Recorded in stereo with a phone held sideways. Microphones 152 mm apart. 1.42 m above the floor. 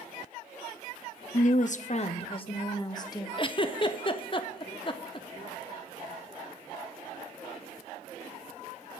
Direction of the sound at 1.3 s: 55° left (ahead or behind).